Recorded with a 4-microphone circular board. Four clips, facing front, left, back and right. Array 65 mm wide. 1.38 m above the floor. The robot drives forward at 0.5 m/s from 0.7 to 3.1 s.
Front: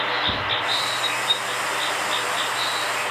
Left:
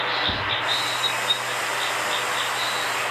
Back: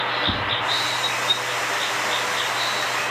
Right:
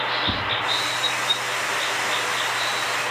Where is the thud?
120° right, 1.0 m.